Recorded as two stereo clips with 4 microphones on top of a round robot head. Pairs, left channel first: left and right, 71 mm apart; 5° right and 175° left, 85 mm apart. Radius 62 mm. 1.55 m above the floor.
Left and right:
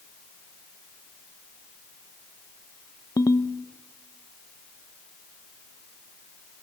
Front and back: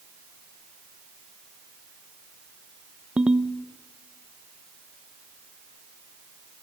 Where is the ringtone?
100° left, 0.7 m.